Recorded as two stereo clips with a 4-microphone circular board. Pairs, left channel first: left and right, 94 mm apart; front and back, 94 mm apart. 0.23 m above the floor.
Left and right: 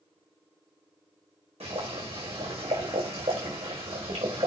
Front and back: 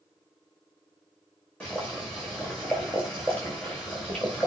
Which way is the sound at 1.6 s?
80° right.